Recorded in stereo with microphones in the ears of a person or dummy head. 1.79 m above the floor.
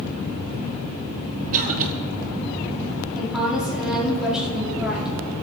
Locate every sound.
1.5 s a cough: 45° right (ahead or behind), 1.2 m
3.1 s a woman speaking: 5° right (ahead or behind), 4.5 m